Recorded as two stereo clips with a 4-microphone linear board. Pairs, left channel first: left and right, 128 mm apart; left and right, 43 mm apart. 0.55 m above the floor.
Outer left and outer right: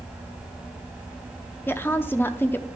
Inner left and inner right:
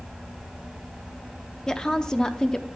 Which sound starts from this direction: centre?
A woman speaking, at 1.7 s.